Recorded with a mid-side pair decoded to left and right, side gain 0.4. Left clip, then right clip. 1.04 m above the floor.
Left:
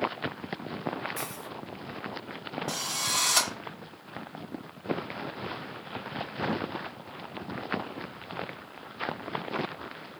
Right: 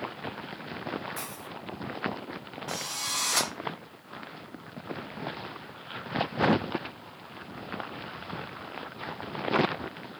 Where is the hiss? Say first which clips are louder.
Left 2 dB; 10° left, 1.4 m.